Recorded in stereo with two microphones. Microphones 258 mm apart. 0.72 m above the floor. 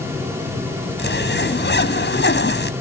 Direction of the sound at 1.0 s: 45° left (ahead or behind).